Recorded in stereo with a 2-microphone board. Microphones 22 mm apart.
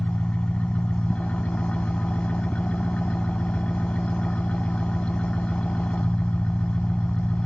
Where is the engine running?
70° left (ahead or behind).